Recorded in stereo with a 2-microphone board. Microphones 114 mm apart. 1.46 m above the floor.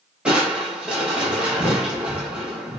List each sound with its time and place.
0.2 s crushing: 10° right (ahead or behind), 1.0 m